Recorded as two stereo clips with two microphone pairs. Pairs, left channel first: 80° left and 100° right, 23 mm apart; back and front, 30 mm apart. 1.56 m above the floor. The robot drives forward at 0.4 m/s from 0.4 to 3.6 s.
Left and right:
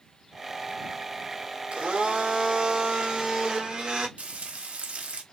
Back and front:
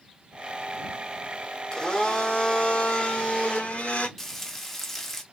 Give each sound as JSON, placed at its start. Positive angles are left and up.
{"t": 1.7, "sound": "a blender", "azimuth_deg": -120, "distance_m": 1.5}
{"t": 4.2, "sound": "frying", "azimuth_deg": -105, "distance_m": 1.0}